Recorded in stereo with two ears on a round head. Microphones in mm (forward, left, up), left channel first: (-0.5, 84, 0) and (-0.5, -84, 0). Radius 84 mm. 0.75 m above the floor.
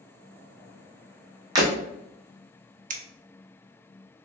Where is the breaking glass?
20° right (ahead or behind), 1.7 m.